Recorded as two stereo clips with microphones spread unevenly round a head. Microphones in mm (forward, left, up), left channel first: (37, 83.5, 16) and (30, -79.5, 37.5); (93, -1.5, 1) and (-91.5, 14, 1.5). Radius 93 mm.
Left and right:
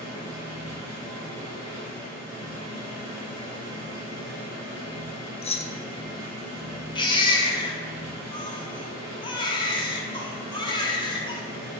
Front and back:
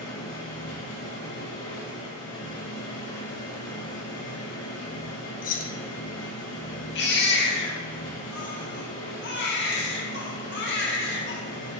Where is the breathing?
I don't hear breathing.